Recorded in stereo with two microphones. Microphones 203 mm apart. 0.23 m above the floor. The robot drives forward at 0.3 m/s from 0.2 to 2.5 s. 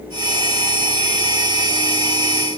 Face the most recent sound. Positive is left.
No sound to turn to.